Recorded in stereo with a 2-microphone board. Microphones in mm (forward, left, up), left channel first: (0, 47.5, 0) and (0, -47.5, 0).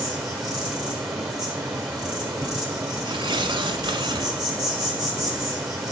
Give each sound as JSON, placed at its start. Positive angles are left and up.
{"t": 0.0, "sound": "an insect", "side_deg": -5, "distance_m": 1.8}
{"t": 3.0, "sound": "tearing paper", "side_deg": -60, "distance_m": 1.2}